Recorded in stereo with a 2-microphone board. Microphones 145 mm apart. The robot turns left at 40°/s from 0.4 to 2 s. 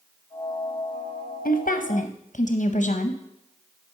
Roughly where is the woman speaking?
Left.